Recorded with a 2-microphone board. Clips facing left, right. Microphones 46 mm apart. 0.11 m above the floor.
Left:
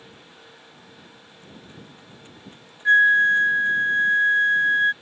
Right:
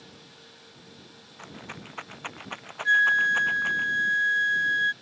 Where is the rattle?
70° right (ahead or behind).